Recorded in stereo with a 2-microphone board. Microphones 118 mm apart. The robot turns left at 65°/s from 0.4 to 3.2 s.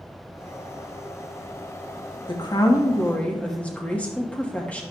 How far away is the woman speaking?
About 1.1 m.